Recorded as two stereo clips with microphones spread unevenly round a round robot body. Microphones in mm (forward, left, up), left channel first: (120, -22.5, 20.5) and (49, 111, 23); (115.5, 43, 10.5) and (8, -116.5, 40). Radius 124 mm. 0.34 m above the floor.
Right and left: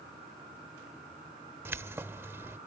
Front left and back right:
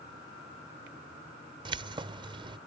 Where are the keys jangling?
Straight behind.